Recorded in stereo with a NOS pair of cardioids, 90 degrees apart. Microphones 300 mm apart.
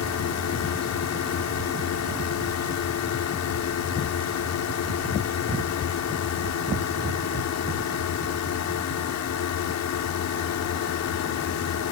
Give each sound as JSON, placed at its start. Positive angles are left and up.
{"t": 0.0, "sound": "a drone", "azimuth_deg": 65}